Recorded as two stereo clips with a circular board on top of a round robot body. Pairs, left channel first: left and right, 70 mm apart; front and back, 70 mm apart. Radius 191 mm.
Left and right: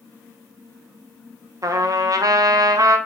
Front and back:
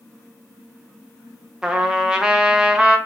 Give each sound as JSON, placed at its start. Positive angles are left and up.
{"t": 1.6, "sound": "a trumpet", "azimuth_deg": -105, "distance_m": 0.6}